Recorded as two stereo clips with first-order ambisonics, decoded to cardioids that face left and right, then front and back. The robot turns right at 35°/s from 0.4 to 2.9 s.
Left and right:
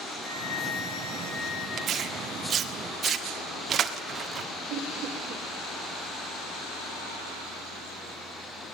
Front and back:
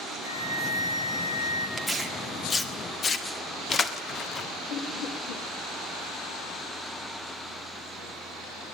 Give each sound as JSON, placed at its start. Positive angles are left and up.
{"t": 0.2, "sound": "a flute", "azimuth_deg": 0, "distance_m": 6.5}
{"t": 1.8, "sound": "tearing paper", "azimuth_deg": -90, "distance_m": 1.4}
{"t": 4.7, "sound": "laughter", "azimuth_deg": -40, "distance_m": 2.5}